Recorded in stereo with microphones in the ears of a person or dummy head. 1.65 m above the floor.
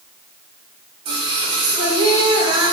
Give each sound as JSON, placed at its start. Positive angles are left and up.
{"t": 1.1, "sound": "singing", "side_deg": -30, "distance_m": 0.5}